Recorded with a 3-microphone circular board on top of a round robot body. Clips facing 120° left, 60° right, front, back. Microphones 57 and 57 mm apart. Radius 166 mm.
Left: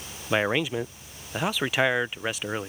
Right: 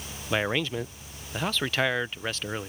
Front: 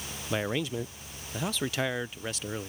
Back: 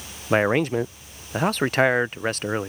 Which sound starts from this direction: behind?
A man speaking, at 0.3 s.